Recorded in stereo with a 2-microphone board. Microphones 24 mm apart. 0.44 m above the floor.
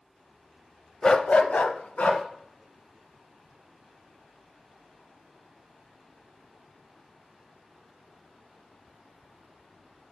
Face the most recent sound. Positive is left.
turn(degrees=75)  # may be behind; listen again after turning